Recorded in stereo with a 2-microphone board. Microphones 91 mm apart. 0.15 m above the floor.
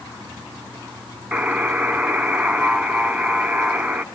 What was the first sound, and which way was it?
A buzzer, 10° right (ahead or behind).